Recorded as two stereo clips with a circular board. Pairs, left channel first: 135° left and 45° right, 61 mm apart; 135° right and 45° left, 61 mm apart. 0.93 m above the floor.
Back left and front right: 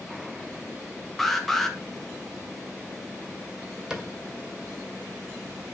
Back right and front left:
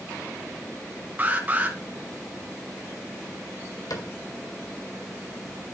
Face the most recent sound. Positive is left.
turn(degrees=-120)